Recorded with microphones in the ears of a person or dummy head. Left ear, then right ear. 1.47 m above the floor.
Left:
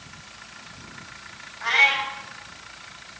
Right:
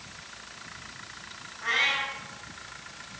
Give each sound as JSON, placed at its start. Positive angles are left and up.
{"t": 1.6, "sound": "a cat meowing", "side_deg": 70, "distance_m": 5.5}